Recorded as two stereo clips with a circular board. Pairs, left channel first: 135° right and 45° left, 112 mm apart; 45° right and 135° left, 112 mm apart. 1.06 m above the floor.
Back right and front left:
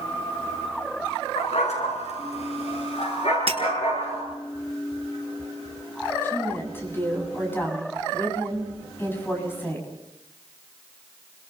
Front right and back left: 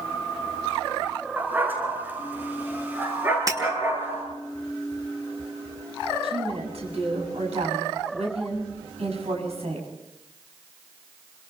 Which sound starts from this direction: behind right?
A dog barking, at 1.4 s.